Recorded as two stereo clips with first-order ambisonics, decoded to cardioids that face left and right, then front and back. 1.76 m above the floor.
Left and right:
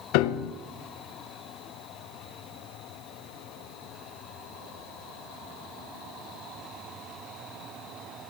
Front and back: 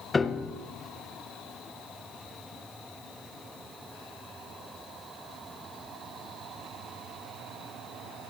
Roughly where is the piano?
Left.